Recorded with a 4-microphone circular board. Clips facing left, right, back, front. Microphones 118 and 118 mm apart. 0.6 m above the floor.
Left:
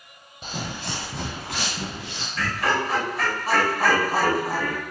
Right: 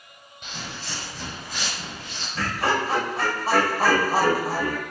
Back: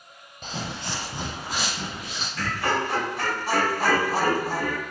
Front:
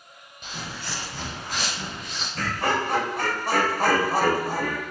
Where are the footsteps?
130° left, 1.1 m; by 2.2 s 95° left, 3 m.